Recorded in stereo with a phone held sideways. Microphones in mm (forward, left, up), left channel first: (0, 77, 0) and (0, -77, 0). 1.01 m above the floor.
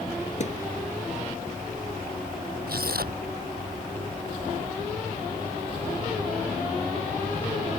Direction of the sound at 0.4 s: 50° left (ahead or behind).